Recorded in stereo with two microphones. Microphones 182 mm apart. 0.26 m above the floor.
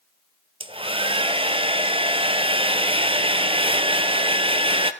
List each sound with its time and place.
0.6 s a hair dryer: 30° right (ahead or behind), 0.9 m